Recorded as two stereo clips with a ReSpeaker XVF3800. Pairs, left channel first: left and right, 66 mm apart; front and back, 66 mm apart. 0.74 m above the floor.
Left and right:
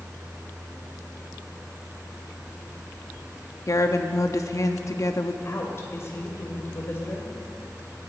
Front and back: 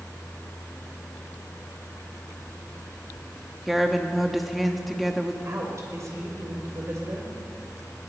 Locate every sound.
3.7 s a woman speaking: 95° left, 1.0 m
5.5 s a woman speaking: 140° left, 2.5 m